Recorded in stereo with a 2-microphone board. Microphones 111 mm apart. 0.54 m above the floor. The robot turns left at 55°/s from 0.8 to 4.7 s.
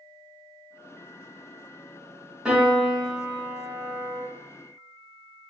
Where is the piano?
15° right, 1.3 m; by 4.2 s 110° right, 1.3 m.